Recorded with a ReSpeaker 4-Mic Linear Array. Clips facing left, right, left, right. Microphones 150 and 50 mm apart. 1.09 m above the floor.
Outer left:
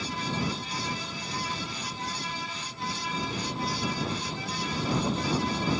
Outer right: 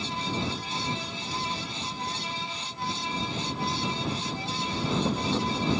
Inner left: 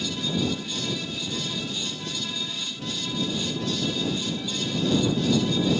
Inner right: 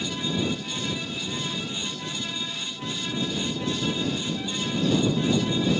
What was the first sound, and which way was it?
Only background noise.